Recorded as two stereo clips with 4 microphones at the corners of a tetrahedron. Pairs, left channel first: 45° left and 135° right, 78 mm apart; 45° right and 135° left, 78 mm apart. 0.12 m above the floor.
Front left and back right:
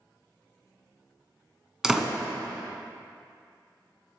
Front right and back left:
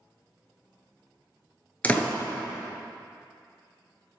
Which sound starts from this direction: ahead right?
A door slam, at 1.8 s.